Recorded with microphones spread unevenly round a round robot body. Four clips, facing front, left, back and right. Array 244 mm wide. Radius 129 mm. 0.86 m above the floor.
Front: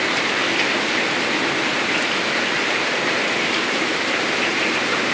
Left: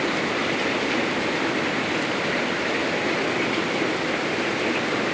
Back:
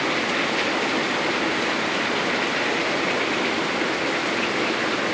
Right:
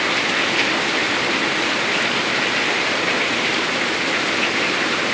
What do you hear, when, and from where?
Only background noise.